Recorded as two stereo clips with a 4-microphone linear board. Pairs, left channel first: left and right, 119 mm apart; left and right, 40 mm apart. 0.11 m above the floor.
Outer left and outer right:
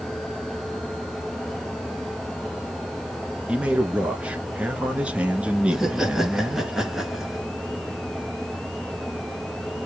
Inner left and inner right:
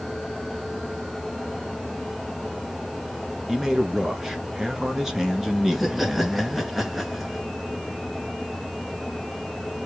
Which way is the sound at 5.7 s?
5° right (ahead or behind).